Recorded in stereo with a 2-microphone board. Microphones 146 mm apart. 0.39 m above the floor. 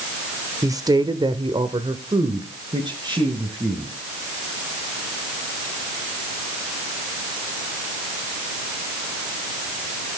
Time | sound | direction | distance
0.6 | a woman speaking | 20° right (ahead or behind) | 1.1 m